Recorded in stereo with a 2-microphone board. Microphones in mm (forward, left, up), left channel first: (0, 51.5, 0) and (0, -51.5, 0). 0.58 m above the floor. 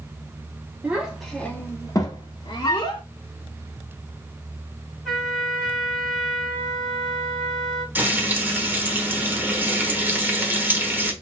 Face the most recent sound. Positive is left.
turn(degrees=-20)  # may be behind; listen again after turning